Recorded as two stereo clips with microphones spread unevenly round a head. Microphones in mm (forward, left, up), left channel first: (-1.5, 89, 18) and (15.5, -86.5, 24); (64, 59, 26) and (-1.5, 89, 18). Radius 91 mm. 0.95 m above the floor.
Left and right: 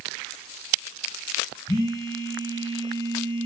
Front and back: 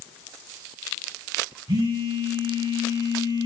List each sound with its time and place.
1.7 s a phone buzzing: 165° left, 3.5 m